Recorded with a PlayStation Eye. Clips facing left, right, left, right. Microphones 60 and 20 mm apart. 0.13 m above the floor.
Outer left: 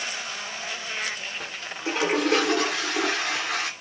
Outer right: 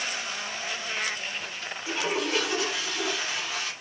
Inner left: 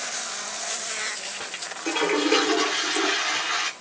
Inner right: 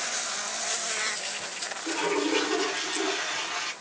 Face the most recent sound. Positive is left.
turn(degrees=85)